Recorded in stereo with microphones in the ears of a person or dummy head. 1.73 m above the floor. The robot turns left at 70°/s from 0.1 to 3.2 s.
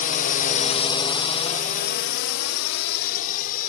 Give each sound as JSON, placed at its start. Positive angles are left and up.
{"t": 0.0, "sound": "a drone", "side_deg": 45}